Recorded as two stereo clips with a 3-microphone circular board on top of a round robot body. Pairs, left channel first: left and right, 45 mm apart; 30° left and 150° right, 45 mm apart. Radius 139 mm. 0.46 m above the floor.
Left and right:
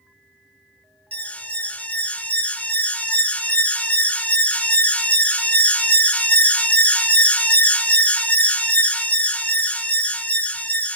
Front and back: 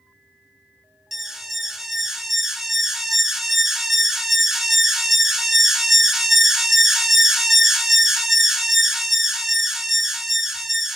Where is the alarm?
130° left, 0.6 m.